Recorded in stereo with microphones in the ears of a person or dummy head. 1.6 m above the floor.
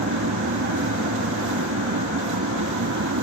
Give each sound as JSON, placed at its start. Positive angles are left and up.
{"t": 0.0, "sound": "a machine running", "side_deg": -65}